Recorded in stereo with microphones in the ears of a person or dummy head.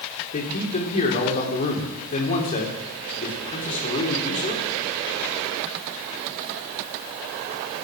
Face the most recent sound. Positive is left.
turn(degrees=35)  # may be behind; listen again after turning